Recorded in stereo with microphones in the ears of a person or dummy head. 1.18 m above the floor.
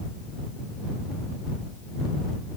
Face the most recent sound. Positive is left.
No sound to turn to.